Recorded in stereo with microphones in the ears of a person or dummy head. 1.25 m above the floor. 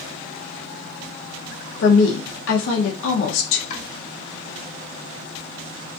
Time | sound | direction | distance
1.8 | a woman speaking | 75° left (ahead or behind) | 0.7 m
3.7 | chopping | 45° left (ahead or behind) | 1.3 m